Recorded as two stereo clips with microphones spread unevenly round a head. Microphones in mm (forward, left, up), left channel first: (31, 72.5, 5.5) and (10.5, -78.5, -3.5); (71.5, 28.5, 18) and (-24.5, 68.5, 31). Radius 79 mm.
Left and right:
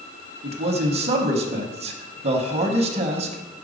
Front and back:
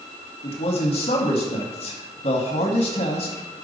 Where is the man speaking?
50° right, 1.0 m.